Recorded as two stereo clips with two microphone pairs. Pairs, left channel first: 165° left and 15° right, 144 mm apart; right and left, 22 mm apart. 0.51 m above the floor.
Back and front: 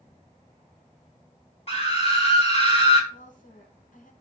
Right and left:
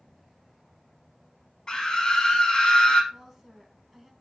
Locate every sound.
1.7 s a scream: 150° right, 4 m
3.1 s a woman speaking: 160° left, 4 m